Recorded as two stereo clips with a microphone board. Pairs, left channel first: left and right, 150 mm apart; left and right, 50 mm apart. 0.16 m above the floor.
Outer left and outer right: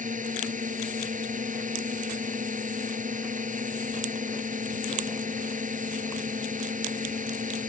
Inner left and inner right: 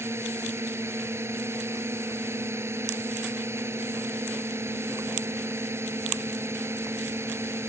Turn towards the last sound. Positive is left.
turn(degrees=-60)  # may be behind; listen again after turning